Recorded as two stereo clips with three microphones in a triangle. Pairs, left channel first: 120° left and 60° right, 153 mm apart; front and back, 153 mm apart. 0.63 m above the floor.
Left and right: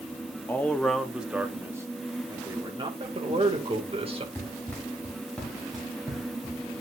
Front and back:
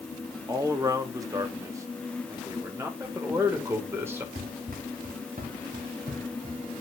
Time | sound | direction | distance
0.5 | a man speaking | 170° left | 1.0 m
3.0 | a man speaking | 110° right | 2 m
4.3 | running footsteps | 170° right | 3.5 m